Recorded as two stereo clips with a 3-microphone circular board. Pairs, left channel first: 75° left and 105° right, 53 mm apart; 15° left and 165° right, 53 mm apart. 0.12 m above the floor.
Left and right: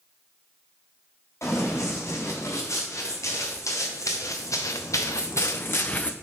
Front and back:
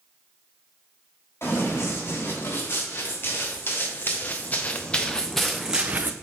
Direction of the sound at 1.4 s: 50° left.